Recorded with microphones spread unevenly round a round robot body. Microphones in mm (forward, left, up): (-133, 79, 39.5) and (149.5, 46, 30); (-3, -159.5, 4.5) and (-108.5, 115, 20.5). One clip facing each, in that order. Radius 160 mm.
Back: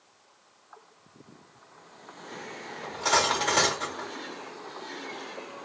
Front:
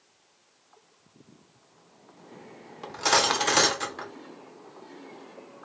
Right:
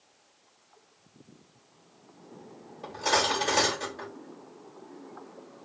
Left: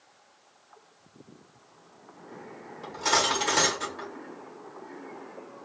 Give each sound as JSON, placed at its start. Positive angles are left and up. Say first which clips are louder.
{"t": 2.8, "sound": "cutlery clinking", "louder": "front 2 dB, right 1 dB", "azimuth_deg": 35, "distance_m": 0.9}